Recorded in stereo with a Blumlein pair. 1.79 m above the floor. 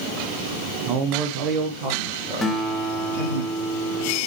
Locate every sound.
0.9 s a man speaking: 30° right, 1.3 m; by 3.4 s 55° right, 3 m
2.4 s a guitar: 15° left, 1.4 m